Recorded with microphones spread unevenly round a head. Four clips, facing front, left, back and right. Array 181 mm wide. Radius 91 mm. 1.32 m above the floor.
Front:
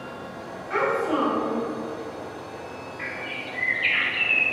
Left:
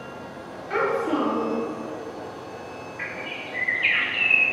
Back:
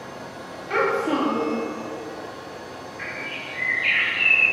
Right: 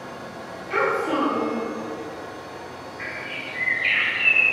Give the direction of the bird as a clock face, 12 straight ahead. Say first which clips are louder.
Right 1 dB, even; 11 o'clock.